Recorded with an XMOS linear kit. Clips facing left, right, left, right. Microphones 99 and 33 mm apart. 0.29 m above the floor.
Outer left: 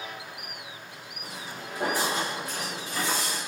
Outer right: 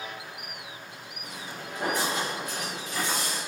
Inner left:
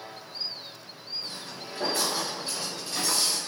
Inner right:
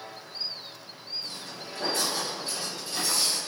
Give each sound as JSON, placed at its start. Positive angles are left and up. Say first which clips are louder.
{"t": 1.2, "sound": "footsteps", "louder": "outer left 1 dB, even", "side_deg": 35, "distance_m": 1.0}